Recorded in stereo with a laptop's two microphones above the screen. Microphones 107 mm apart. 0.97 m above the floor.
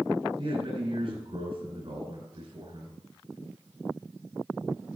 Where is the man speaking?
50° right (ahead or behind), 5.5 m.